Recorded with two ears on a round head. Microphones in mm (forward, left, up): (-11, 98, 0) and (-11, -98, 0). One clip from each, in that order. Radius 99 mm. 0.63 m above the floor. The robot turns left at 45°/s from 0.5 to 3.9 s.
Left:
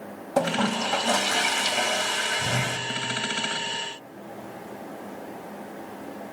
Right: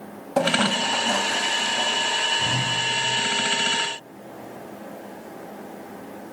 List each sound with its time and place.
0.4 s a toilet flushing: 175° left, 1.4 m; by 2.8 s 75° left, 1.4 m